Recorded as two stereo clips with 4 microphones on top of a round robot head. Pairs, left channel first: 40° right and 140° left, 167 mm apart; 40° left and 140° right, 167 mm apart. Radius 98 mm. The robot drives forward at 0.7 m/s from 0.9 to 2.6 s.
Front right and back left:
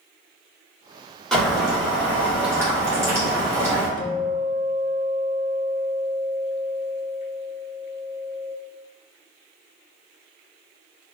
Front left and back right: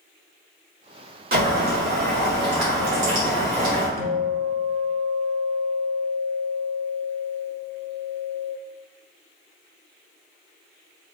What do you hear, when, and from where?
1.3 s boiling: 125° right, 1.6 m; by 3.9 s 145° right, 2 m
4.0 s a guitar: 105° right, 0.7 m